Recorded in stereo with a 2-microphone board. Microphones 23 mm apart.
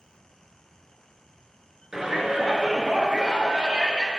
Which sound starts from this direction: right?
A shout, at 1.9 s.